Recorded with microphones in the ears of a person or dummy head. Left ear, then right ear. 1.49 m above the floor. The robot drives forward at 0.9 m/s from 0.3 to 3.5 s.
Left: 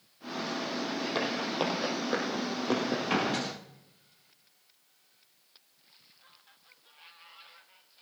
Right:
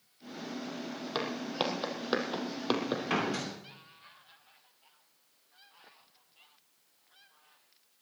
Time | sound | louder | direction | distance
1.1 | footsteps | left 1 dB | 20° right (ahead or behind) | 4 m
3.1 | a door slam | left 2 dB | 10° right (ahead or behind) | 3 m